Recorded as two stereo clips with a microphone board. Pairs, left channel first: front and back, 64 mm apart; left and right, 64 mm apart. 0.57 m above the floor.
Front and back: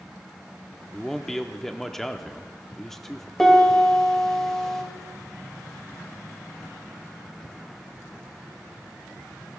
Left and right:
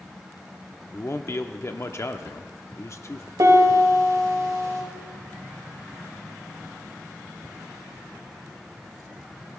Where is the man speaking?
85° left, 0.8 m.